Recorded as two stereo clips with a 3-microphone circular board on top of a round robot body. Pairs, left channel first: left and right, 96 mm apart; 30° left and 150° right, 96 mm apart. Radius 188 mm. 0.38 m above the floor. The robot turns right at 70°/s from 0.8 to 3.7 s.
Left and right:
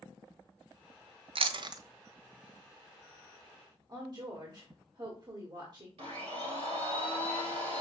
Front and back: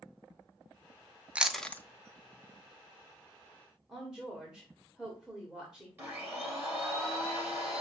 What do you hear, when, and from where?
1.4 s chewing: 75° right, 0.6 m; by 1.8 s 40° right, 0.6 m
3.9 s a woman speaking: 70° right, 1.8 m
6.0 s a blender: 80° right, 2.5 m